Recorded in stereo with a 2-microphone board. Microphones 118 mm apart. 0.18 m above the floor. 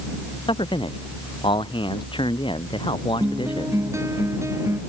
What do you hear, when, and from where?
0.5 s a man speaking: 45° left (ahead or behind)
3.2 s a guitar: 25° right (ahead or behind)